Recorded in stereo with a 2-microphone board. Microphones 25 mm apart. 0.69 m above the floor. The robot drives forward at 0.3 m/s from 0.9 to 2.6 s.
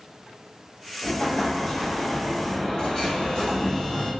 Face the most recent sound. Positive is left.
turn(degrees=20)  # may be behind; listen again after turning